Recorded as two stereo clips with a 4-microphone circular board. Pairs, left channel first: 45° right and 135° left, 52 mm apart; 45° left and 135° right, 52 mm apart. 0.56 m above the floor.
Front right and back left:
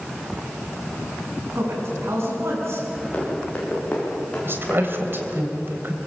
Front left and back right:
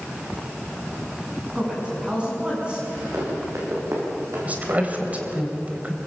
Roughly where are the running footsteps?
Right.